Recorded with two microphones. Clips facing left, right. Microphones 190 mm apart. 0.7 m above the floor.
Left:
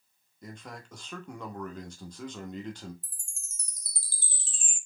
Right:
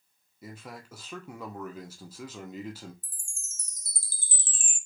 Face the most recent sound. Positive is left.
turn(degrees=-50)  # may be behind; listen again after turning